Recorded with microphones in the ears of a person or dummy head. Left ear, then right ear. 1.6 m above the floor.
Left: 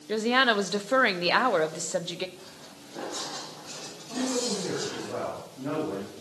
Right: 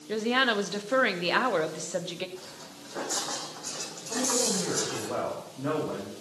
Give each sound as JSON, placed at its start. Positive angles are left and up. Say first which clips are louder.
{"t": 0.1, "sound": "a woman speaking", "louder": "left 2 dB", "side_deg": 25, "distance_m": 0.9}
{"t": 2.4, "sound": "footsteps", "louder": "right 2 dB", "side_deg": -70, "distance_m": 5.5}
{"t": 4.1, "sound": "a woman speaking", "louder": "right 2 dB", "side_deg": -85, "distance_m": 6.5}